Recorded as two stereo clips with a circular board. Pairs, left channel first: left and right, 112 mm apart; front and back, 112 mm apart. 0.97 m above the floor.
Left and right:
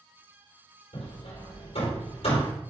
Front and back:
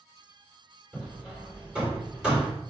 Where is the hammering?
100° left, 4 m.